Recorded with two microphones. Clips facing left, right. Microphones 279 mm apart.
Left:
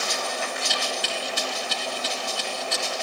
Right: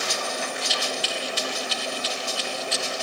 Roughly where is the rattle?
Left.